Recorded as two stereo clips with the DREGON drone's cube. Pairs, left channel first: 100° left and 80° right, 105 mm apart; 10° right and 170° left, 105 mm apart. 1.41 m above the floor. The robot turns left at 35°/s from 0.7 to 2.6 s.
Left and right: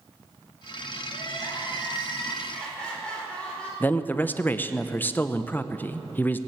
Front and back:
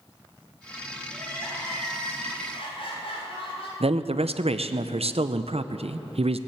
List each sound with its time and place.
1.1 s crying: 70° left, 4 m; by 3.7 s 20° left, 4 m
3.8 s a man speaking: 170° left, 0.6 m